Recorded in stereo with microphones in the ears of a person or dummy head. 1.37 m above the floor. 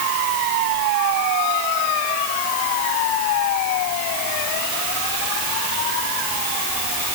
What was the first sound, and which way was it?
Only background noise.